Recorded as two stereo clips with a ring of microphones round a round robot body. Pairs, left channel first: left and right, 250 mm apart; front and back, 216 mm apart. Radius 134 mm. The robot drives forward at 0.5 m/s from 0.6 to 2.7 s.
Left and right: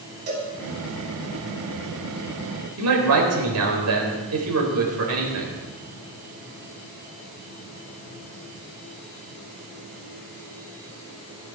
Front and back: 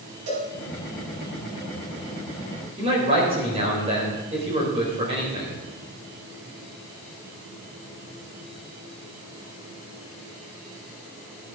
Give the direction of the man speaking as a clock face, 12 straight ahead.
4 o'clock.